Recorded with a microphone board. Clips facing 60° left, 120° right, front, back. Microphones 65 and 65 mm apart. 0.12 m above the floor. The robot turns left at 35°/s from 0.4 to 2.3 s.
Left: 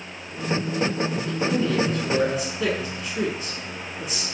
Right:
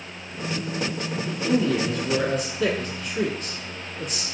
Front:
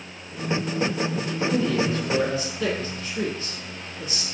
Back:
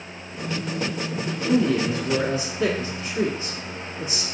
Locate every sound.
1.3 s a man speaking: 175° left, 1.1 m; by 4.2 s 140° left, 1.1 m